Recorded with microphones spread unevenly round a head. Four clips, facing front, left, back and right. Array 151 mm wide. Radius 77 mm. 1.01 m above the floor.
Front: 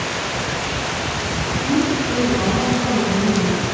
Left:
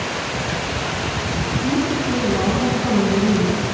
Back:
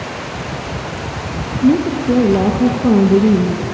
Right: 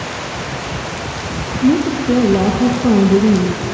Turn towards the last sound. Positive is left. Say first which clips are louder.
# right 8 dB, back 7 dB
turn(degrees=-130)